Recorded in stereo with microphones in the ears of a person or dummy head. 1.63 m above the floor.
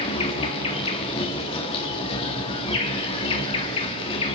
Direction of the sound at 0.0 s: 30° left (ahead or behind).